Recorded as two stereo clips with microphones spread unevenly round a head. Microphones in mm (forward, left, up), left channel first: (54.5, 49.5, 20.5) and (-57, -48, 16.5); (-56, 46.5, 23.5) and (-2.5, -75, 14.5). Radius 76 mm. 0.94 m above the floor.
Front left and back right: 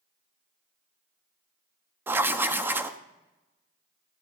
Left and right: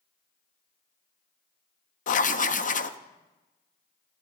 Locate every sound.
2.1 s writing: 145° left, 0.7 m